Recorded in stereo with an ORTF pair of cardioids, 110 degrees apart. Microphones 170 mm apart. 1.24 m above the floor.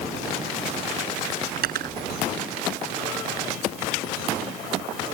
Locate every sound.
1.6 s cutlery clinking: 65° right